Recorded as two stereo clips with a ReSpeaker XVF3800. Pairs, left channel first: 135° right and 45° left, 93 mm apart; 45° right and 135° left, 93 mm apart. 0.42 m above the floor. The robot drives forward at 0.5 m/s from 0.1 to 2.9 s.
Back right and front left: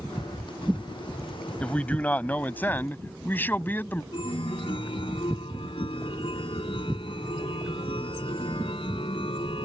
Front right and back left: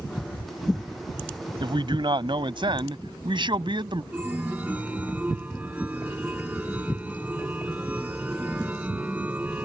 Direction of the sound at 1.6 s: 150° left.